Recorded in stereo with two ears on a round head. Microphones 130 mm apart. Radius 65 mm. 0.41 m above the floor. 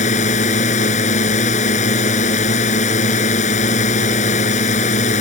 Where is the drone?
50° left (ahead or behind).